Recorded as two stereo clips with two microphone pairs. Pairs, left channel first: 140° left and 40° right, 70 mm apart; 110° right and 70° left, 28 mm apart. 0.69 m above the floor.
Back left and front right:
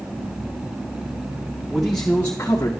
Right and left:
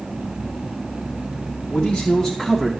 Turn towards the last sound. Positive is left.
turn(degrees=165)